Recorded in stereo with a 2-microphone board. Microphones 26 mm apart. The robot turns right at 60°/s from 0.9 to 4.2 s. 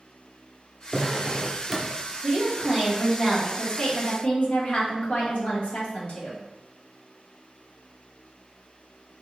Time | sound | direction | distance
0.9 | a drawer | 70° right | 0.7 m
2.2 | a woman speaking | 60° right | 1.2 m